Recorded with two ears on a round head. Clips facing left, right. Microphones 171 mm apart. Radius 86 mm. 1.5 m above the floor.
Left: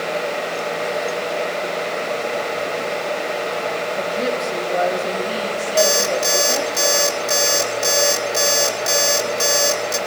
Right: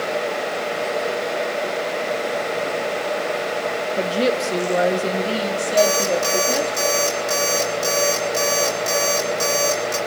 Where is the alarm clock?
10° left (ahead or behind), 2.5 m.